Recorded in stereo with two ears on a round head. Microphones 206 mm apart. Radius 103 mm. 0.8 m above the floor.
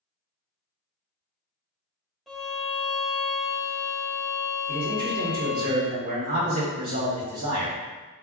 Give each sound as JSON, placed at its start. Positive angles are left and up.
{"t": 2.3, "sound": "a violin", "side_deg": 0, "distance_m": 0.5}
{"t": 4.7, "sound": "a man speaking", "side_deg": -40, "distance_m": 2.0}